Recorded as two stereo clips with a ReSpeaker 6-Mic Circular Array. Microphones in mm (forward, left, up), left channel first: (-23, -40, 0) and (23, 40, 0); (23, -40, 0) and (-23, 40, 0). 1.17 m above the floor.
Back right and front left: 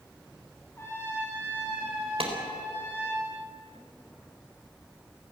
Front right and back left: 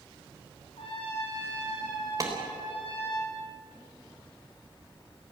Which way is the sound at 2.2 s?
65° left.